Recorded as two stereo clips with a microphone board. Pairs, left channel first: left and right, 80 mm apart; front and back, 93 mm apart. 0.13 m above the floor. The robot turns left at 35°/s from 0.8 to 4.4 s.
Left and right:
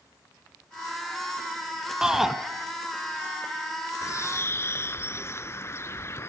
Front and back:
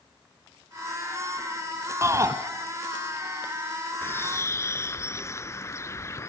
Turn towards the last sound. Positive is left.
turn(degrees=45)